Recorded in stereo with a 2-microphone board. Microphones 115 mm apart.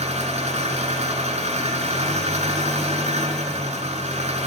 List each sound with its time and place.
0.0 s an engine running: 75° right (ahead or behind), 6 m